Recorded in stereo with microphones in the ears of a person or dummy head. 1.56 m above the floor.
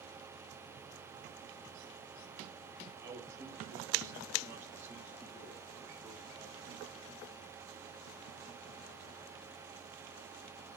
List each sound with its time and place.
3.0 s a man speaking: 15° right (ahead or behind), 2.5 m; by 7.0 s 5° right (ahead or behind), 4.5 m